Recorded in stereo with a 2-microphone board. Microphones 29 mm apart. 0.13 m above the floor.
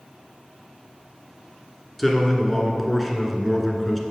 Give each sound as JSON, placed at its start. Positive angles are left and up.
{"t": 2.0, "sound": "a man speaking", "side_deg": 5, "distance_m": 1.3}